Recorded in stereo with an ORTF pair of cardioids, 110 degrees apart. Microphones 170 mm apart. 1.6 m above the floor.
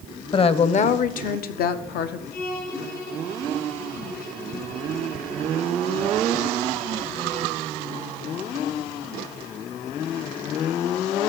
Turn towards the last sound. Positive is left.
turn(degrees=65)